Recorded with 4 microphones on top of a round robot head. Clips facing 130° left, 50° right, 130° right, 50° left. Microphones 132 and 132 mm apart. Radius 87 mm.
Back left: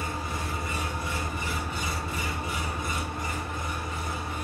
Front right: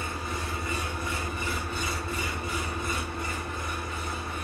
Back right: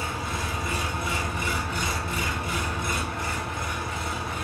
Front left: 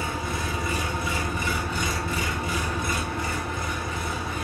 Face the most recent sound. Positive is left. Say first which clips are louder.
# back left 1 dB, front left 2 dB
turn(degrees=60)